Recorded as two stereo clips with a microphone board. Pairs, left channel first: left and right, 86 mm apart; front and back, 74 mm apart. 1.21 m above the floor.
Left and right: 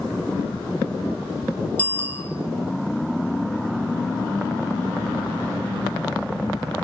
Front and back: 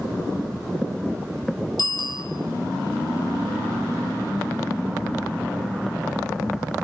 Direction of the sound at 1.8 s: 15° left.